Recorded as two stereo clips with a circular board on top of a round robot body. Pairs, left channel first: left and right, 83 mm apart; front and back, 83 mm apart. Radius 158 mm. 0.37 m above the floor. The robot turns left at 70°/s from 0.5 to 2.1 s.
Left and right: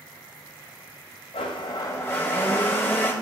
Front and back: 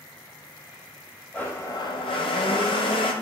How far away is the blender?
About 0.5 m.